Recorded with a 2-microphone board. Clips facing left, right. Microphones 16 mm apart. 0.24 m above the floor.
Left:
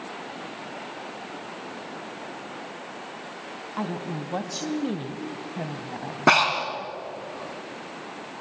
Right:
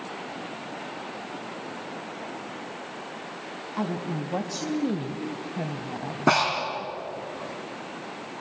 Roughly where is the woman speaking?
Centre.